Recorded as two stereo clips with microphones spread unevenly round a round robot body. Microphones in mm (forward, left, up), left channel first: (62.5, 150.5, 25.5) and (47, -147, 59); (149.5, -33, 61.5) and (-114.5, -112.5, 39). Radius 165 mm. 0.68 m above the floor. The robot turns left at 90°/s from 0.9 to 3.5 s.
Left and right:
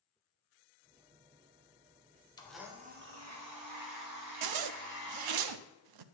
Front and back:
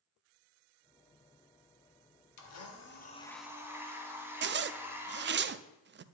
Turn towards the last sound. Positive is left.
turn(degrees=-110)